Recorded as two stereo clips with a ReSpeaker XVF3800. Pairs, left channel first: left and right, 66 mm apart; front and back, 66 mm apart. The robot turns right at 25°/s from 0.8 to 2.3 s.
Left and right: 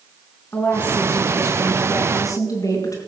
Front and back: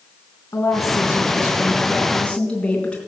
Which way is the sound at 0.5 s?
40° left.